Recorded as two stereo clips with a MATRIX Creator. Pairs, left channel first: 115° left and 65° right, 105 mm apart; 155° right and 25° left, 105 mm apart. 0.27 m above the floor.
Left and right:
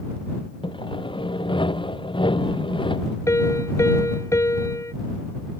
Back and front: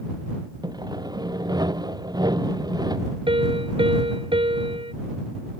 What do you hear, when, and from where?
0.6 s sawing: 75° left
3.3 s a piano: 50° left